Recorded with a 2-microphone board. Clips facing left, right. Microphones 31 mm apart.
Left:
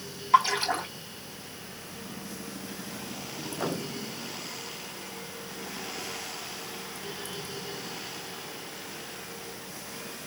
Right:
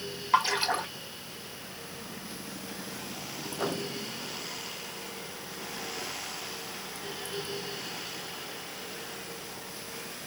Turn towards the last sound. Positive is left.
turn(degrees=-15)  # may be behind; listen again after turning